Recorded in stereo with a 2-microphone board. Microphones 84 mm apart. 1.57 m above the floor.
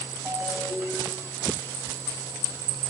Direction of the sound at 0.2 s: 30° right (ahead or behind).